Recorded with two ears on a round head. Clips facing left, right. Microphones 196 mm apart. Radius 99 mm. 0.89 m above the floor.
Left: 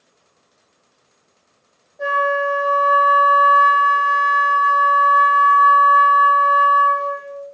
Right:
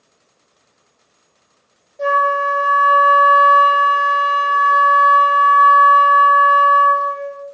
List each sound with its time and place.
2.0 s a flute: 35° right (ahead or behind), 0.9 m